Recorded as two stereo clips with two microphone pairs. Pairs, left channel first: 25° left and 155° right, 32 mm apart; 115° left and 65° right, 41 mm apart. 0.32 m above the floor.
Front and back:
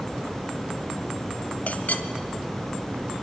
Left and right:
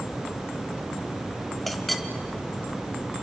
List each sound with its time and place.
1.7 s a clink: 35° left, 1.1 m